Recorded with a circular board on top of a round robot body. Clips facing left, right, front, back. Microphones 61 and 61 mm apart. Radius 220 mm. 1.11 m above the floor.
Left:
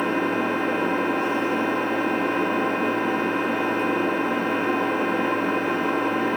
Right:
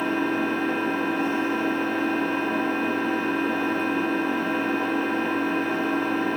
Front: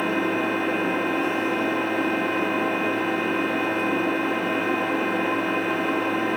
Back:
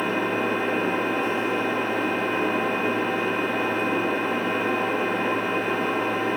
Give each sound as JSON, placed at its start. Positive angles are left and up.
{"t": 0.0, "sound": "an engine running", "azimuth_deg": 90, "distance_m": 1.0}